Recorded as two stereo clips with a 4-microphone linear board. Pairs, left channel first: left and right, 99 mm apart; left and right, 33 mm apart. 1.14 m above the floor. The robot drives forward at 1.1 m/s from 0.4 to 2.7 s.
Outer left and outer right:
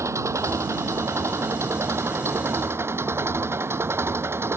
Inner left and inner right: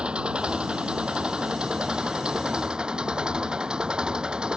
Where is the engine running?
30° right (ahead or behind); by 4.6 s 25° right (ahead or behind).